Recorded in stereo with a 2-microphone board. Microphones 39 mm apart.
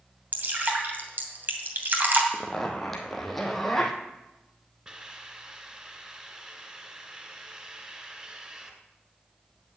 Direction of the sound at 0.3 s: 50° right (ahead or behind).